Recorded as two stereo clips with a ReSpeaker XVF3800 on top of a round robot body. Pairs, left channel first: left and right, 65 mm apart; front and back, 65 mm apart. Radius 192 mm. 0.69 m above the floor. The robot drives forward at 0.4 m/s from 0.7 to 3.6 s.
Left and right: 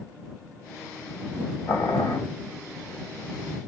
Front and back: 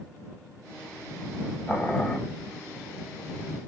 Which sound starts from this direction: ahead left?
Boiling, at 1.7 s.